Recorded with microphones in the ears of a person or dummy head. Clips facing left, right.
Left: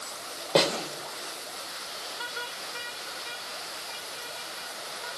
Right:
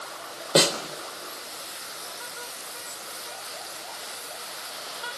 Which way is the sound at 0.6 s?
15° right (ahead or behind).